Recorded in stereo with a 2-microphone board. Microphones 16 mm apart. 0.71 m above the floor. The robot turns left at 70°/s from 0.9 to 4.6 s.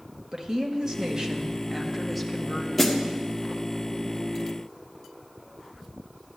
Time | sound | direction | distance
0.3 | a woman speaking | 90° right | 0.8 m
2.8 | a snare drum | 15° left (ahead or behind) | 0.8 m